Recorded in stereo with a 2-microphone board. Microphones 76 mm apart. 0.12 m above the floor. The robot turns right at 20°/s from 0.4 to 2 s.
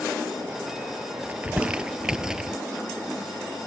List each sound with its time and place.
1.3 s crumpling: 20° right (ahead or behind); by 2.6 s 10° right (ahead or behind)